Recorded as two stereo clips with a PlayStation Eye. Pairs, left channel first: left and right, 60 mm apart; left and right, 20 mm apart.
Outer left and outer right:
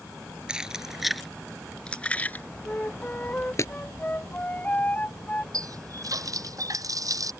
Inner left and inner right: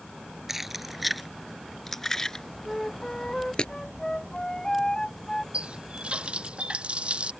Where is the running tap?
70° right (ahead or behind).